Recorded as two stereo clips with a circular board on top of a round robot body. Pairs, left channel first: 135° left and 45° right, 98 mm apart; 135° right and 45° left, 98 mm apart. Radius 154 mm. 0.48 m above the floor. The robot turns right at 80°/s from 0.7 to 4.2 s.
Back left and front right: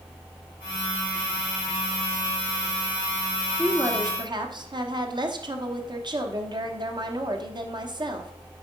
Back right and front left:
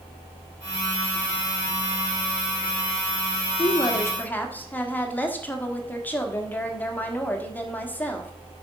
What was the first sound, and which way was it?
A woman speaking, 115° right.